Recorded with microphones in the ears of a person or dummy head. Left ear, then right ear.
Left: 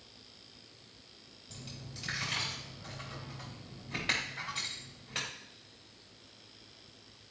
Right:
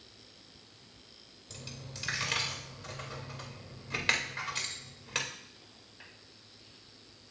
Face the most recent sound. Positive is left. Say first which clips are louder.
# right 2 dB
turn(degrees=-40)  # may be behind; listen again after turning